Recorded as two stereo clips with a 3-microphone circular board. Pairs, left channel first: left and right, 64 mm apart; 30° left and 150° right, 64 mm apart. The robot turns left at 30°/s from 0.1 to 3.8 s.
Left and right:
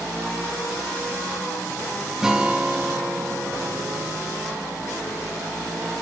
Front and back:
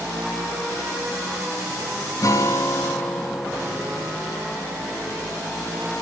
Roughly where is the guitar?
Ahead.